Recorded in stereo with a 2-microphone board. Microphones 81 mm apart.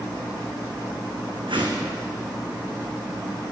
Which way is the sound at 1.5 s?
80° right.